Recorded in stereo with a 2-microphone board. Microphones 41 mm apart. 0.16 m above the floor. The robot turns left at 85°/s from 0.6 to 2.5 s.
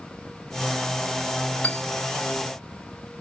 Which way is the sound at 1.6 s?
30° left (ahead or behind).